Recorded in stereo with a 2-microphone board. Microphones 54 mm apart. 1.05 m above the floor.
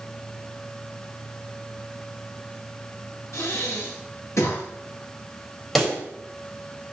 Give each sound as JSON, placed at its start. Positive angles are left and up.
{"t": 3.3, "sound": "breathing", "side_deg": 65, "distance_m": 6.5}
{"t": 5.8, "sound": "a pop", "side_deg": 0, "distance_m": 4.0}